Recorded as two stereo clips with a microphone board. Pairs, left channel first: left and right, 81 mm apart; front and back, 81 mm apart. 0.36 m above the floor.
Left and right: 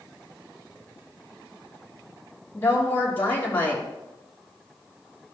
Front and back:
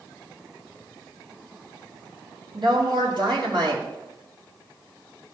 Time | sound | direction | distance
2.5 | a woman speaking | 155° left | 4.5 m